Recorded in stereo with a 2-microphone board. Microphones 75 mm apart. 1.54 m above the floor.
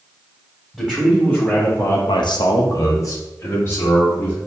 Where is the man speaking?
5° left (ahead or behind), 1.4 m; by 4.4 s 30° left (ahead or behind), 2 m.